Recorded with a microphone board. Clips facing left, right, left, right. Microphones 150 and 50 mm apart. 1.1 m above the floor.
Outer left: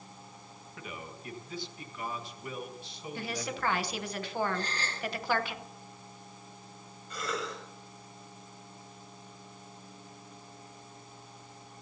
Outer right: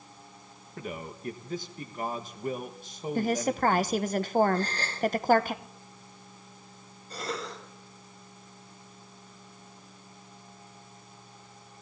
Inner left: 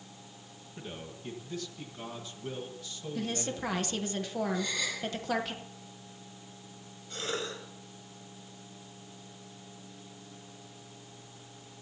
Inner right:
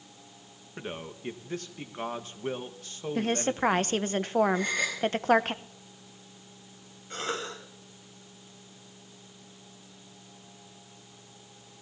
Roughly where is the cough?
Right.